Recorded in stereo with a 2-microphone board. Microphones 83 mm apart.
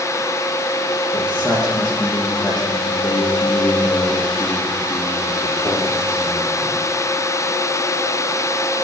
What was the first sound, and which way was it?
A man speaking, 10° right (ahead or behind).